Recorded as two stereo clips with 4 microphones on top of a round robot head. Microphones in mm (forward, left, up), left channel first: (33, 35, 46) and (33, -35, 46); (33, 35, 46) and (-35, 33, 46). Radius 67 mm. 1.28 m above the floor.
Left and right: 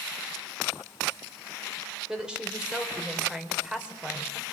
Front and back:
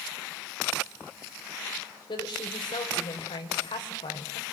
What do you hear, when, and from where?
2.1 s a woman speaking: 10° right, 4 m